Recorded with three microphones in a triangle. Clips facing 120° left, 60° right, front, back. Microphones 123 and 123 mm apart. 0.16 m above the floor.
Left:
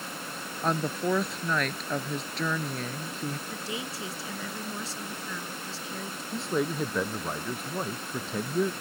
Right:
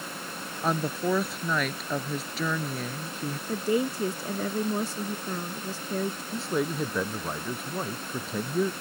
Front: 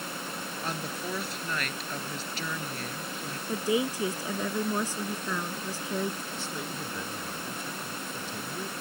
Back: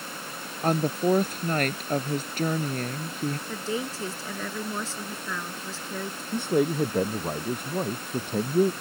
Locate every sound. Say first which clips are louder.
0.6 s a woman speaking: right 1 dB, back 14 dB; 145° right
3.5 s a woman speaking: right 10 dB, front 3 dB; 70° right
6.3 s a man speaking: left 1 dB, back 13 dB; 150° right